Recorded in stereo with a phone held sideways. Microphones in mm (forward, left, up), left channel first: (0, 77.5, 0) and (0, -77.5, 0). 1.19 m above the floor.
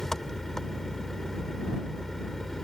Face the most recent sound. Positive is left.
turn(degrees=5)  # may be behind; listen again after turning